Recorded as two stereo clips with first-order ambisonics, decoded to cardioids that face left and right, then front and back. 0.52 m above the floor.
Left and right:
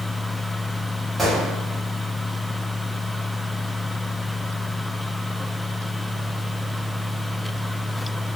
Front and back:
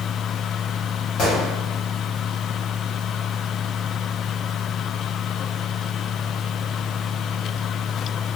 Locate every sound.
1.2 s a gunshot: 5° right, 1.3 m